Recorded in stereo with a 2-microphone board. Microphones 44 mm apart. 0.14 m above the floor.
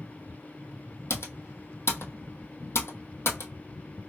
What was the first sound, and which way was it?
Typing on a keyboard, 70° left (ahead or behind).